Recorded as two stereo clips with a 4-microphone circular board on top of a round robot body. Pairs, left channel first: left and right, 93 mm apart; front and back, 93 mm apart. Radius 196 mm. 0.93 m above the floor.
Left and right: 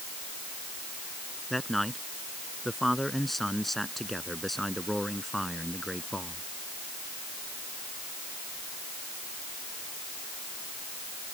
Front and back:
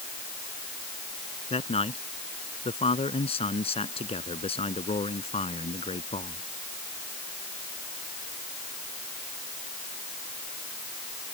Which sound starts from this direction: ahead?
A man speaking, at 1.5 s.